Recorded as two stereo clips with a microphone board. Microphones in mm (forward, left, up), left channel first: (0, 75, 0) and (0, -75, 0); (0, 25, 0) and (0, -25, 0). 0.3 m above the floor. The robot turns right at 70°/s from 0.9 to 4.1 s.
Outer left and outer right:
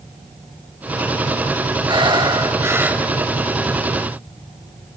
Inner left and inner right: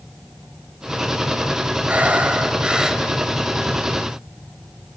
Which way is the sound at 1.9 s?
95° right.